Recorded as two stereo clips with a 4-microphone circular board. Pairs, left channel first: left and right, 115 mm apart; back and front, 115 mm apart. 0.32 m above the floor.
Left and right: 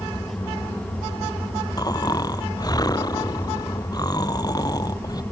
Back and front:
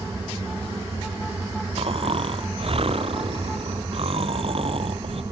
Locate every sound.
1.8 s snoring: 35° left